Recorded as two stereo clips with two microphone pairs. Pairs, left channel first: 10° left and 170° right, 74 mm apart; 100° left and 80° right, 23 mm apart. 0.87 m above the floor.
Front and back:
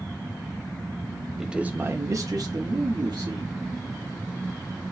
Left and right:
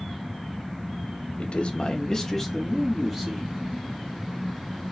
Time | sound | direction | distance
1.4 | a man speaking | 105° left | 0.7 m